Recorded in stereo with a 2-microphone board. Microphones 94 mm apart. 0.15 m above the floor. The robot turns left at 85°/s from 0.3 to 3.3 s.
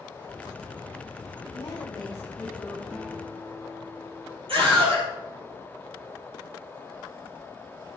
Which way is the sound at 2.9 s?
175° left.